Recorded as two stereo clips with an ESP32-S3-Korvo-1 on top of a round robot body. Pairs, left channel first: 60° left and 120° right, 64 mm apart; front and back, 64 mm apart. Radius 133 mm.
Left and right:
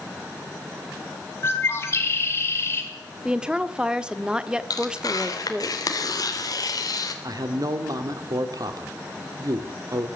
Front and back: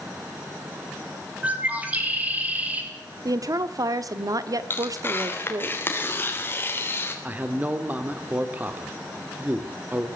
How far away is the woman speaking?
About 1.4 m.